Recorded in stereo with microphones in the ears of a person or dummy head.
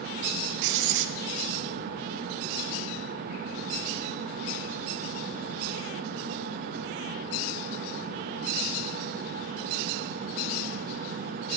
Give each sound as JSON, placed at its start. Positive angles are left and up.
{"t": 0.6, "sound": "writing", "side_deg": -65, "distance_m": 0.6}